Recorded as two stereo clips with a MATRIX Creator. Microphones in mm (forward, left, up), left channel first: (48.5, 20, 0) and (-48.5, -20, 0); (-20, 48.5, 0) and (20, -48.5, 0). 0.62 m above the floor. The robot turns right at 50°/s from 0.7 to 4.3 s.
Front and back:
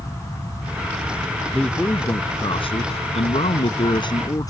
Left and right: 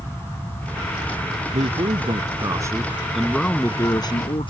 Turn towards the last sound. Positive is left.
turn(degrees=75)